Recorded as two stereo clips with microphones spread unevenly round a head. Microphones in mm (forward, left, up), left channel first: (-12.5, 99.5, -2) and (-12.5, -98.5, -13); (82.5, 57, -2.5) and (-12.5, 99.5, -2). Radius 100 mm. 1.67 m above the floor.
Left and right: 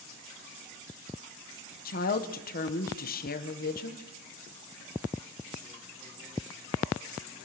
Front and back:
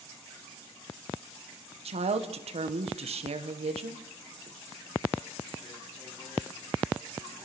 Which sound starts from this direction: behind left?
A woman speaking, at 1.9 s.